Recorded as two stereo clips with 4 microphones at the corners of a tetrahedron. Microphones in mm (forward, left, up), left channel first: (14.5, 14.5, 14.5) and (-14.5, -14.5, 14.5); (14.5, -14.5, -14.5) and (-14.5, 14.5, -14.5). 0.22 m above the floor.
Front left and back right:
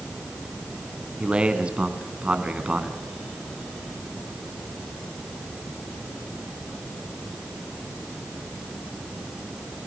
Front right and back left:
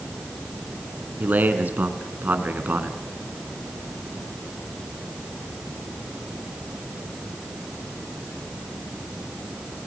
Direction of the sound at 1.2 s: 165° left.